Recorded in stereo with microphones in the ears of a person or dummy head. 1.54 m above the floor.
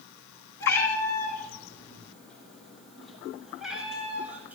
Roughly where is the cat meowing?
Centre.